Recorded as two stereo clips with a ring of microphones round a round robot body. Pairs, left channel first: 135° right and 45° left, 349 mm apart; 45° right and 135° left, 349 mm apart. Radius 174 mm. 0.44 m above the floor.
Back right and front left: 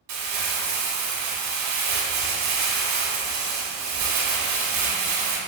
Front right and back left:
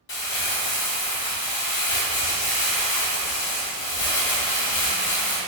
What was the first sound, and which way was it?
Crumpling, 10° left.